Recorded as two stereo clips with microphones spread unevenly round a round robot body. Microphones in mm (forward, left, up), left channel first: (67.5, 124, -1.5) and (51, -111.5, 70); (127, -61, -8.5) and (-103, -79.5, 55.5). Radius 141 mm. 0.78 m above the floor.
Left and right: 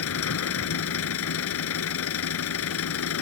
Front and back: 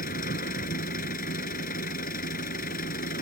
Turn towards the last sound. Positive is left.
turn(degrees=65)